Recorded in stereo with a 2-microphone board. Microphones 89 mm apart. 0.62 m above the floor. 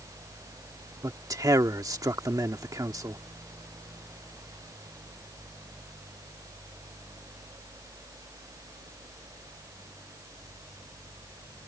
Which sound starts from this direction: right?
A man speaking, at 1.0 s.